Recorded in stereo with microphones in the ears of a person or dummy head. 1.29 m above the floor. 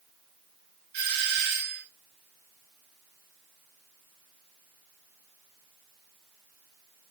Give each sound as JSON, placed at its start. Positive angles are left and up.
{"t": 0.9, "sound": "a doorbell", "side_deg": -55, "distance_m": 3.0}